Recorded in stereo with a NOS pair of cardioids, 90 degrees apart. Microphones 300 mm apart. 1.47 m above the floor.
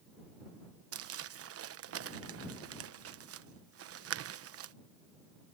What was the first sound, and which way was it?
Crumpling, 55° right.